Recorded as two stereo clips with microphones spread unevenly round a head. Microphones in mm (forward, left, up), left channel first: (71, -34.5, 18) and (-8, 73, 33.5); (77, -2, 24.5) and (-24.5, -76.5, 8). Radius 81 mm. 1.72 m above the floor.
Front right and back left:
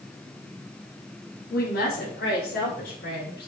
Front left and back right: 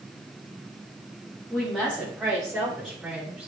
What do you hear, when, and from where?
1.5 s a woman speaking: 55° right, 4 m; by 3.5 s 60° right, 6.5 m